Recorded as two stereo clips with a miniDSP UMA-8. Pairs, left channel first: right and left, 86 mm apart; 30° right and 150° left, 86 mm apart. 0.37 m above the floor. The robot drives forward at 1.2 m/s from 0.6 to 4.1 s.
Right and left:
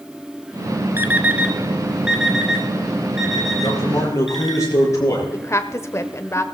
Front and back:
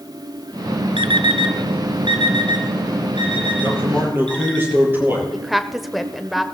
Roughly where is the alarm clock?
Behind left.